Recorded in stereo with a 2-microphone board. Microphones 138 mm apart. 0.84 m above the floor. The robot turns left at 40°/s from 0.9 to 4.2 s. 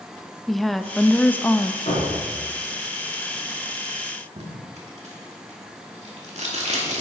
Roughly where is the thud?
Left.